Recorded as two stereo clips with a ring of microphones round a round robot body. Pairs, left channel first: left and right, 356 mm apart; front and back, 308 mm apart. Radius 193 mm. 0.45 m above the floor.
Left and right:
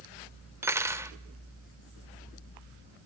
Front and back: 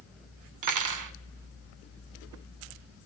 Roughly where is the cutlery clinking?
Behind.